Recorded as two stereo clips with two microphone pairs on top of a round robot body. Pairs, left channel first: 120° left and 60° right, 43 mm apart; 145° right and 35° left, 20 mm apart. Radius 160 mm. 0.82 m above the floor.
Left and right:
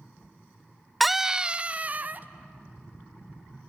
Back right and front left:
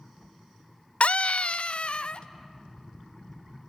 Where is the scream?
150° right, 0.6 m; by 2.3 s 105° right, 1.2 m.